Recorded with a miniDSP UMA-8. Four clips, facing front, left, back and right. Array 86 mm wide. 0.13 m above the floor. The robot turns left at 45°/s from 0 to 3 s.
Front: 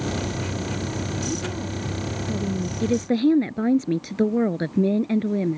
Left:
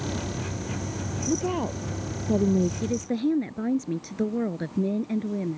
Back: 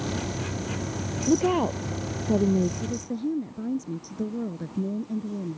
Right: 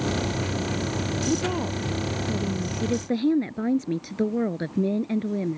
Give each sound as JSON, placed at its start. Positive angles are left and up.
{"t": 1.3, "sound": "a woman speaking", "azimuth_deg": -170}
{"t": 2.8, "sound": "a woman speaking", "azimuth_deg": -5}